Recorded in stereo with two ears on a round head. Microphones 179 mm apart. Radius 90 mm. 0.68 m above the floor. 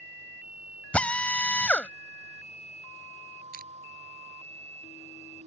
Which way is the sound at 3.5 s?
50° right (ahead or behind).